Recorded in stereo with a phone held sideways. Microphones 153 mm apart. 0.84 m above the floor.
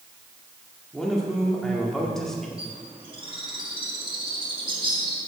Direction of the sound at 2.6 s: 35° right (ahead or behind).